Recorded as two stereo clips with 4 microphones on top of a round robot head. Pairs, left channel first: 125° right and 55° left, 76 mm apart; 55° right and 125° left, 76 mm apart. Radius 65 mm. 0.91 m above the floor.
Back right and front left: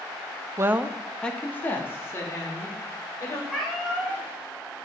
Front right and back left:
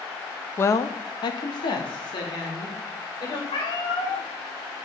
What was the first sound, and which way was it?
A woman speaking, 5° left.